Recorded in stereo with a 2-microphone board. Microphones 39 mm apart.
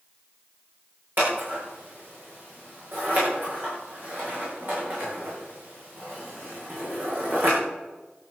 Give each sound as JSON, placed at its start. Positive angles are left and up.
{"t": 1.2, "sound": "scissors", "side_deg": -55, "distance_m": 8.0}